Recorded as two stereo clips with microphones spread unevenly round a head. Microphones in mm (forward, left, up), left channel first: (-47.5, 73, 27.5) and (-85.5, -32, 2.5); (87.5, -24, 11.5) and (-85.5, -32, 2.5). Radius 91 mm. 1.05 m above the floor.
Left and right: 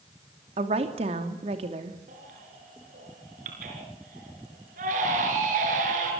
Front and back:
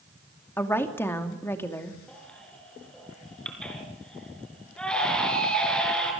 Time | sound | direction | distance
0.6 | a woman speaking | 75° right | 2.5 m
2.1 | a baby crying | 80° right | 4.5 m